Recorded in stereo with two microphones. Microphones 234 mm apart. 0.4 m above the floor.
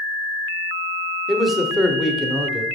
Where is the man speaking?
Centre (ahead or behind), 1.0 m.